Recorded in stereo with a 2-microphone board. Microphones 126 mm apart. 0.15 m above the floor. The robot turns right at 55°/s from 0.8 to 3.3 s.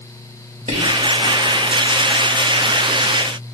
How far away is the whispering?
About 3.5 m.